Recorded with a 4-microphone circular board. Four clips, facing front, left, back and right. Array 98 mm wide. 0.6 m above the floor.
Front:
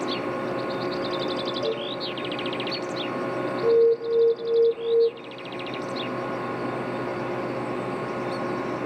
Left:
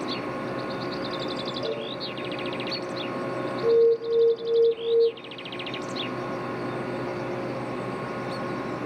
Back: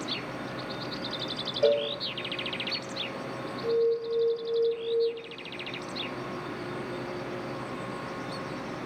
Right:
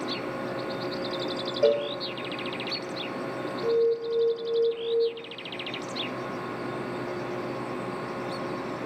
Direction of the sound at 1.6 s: 115° right.